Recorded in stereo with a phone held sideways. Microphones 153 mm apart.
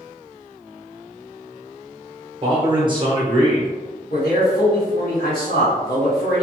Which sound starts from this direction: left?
A man speaking, at 4.1 s.